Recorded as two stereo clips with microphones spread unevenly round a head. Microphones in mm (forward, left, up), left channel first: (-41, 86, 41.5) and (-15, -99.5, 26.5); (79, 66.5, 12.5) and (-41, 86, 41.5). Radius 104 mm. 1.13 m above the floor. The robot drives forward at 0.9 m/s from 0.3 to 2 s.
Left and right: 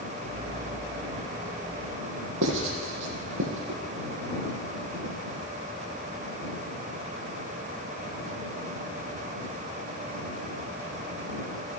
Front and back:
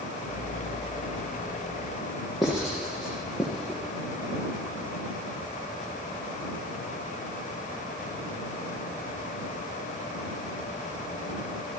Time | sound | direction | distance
2.4 | writing | 105° right | 8 m